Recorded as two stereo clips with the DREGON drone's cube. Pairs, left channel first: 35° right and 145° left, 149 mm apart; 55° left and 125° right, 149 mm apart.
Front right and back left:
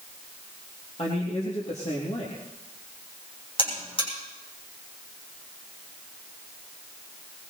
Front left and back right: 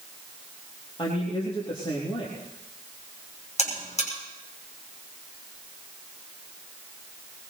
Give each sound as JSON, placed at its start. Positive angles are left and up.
{"t": 1.0, "sound": "a man speaking", "azimuth_deg": 5, "distance_m": 3.0}
{"t": 3.6, "sound": "a buzzer", "azimuth_deg": 15, "distance_m": 6.0}